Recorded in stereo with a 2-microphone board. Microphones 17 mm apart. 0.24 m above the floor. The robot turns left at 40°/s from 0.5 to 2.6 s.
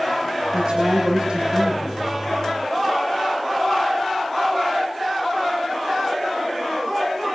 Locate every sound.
0.5 s a man speaking: 85° right, 8 m; by 2.1 s 145° right, 8 m